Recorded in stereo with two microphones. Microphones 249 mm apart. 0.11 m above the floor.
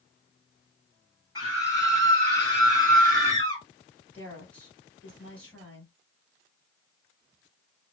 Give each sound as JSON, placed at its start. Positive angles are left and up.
{"t": 1.4, "sound": "a scream", "side_deg": 15, "distance_m": 1.8}
{"t": 4.1, "sound": "a woman speaking", "side_deg": 5, "distance_m": 2.0}